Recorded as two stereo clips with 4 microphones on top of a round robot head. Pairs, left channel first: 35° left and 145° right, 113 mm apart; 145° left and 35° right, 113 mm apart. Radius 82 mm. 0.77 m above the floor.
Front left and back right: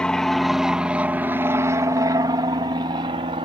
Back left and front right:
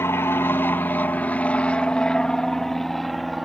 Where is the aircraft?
110° left; by 3.5 s 125° right.